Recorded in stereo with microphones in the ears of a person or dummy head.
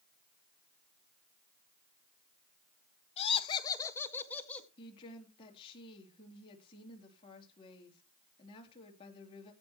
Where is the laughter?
30° left (ahead or behind), 1.4 m; by 4.7 s 5° left (ahead or behind), 2.5 m.